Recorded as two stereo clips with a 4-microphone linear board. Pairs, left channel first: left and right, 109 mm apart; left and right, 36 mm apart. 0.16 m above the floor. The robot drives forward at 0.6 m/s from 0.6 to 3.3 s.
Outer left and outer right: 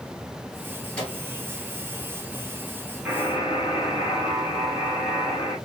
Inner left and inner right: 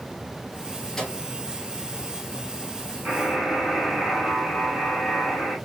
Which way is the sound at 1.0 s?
10° left (ahead or behind).